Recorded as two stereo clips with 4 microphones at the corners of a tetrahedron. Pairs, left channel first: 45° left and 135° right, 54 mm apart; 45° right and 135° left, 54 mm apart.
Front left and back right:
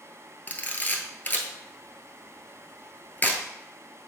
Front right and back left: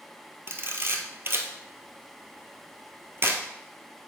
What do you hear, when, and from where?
0.5 s a camera shutter: 100° left, 1.1 m